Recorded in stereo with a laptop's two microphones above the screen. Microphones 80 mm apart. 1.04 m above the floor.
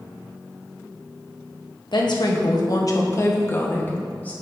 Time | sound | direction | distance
1.9 | a woman speaking | 65° left (ahead or behind) | 1.2 m